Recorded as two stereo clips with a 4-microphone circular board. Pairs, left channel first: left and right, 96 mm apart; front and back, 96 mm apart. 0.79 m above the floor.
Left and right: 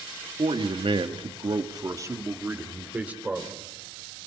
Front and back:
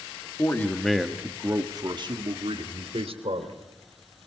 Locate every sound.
0.4 s a man speaking: 65° right, 1.6 m; by 3.6 s 170° right, 3 m